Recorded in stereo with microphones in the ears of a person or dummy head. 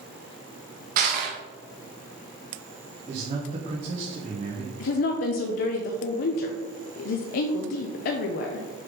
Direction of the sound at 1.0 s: 60° right (ahead or behind).